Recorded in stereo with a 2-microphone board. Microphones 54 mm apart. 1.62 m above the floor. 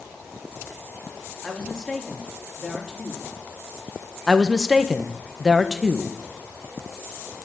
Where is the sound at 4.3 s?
Centre (ahead or behind), 1.4 m.